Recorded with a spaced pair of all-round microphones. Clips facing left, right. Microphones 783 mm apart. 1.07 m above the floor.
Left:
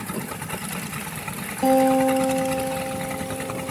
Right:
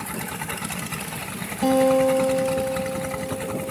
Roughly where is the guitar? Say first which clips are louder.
Even; right.